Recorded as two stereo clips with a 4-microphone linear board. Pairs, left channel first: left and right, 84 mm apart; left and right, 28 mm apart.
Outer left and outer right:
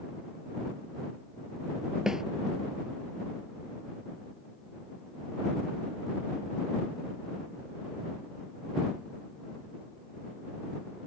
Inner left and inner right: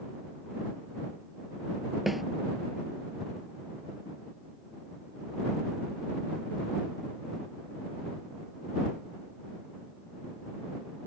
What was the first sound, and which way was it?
A snare drum, 5° right (ahead or behind).